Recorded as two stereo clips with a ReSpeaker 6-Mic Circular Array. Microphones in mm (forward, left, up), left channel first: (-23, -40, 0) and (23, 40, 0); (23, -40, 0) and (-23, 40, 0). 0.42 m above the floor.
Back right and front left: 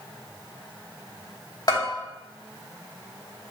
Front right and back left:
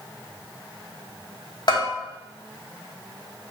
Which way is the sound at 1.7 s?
85° right.